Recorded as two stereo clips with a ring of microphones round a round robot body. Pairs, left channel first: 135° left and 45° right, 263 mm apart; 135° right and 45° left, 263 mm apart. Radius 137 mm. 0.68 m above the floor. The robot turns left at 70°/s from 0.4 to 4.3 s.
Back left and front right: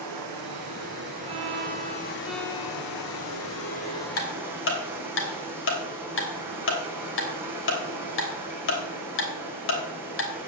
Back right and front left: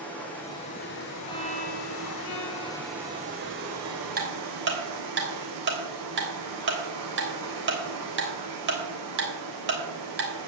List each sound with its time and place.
0.0 s running water: 50° right, 3.5 m; by 10.5 s 35° left, 3.5 m
1.3 s a violin: 60° right, 1.8 m; by 4.1 s 100° left, 1.8 m
4.2 s ticking: 105° left, 3.5 m; by 10.5 s 95° left, 3.5 m